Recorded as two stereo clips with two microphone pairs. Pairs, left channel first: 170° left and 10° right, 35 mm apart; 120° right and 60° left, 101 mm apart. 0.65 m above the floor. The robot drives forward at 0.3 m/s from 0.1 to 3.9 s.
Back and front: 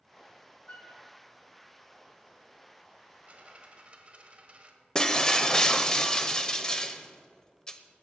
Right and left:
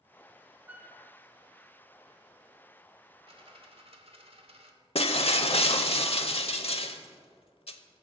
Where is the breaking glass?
125° right, 0.8 m.